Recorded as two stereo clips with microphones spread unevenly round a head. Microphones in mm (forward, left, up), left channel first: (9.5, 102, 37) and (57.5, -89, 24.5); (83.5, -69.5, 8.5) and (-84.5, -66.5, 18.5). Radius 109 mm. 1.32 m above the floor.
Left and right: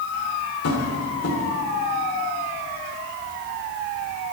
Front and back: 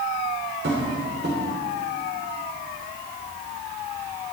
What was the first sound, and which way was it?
Tapping, 130° left.